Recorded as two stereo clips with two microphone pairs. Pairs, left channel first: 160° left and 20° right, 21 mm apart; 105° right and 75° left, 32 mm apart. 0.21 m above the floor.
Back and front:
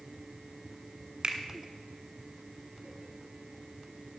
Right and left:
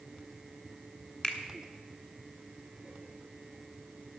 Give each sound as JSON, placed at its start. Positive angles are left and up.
{"t": 1.2, "sound": "a finger snap", "azimuth_deg": -60, "distance_m": 1.6}